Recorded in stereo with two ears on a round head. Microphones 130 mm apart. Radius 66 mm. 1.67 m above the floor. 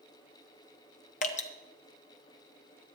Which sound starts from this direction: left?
Dripping, at 1.2 s.